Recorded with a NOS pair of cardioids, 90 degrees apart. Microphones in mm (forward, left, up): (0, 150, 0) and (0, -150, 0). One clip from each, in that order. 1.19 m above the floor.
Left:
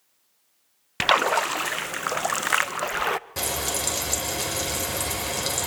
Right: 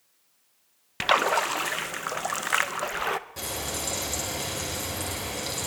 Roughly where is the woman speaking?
No woman speaking in this recording.